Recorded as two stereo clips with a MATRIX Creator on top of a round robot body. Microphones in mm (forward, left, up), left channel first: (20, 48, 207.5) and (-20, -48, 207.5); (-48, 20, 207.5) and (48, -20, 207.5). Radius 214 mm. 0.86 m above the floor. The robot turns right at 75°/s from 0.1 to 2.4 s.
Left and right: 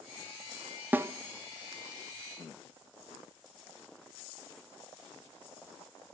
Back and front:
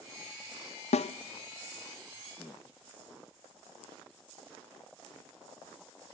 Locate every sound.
0.9 s a snare drum: 170° left, 0.6 m; by 1.1 s 175° right, 0.6 m